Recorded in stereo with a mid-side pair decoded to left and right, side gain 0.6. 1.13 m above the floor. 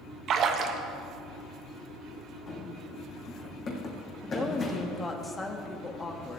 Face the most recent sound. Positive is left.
turn(degrees=20)